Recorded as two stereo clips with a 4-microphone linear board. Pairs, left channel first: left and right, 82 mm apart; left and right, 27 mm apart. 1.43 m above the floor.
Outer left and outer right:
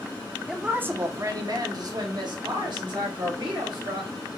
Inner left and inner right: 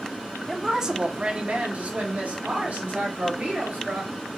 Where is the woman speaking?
5° right (ahead or behind), 0.6 m; by 4.1 s 75° right (ahead or behind), 2.5 m.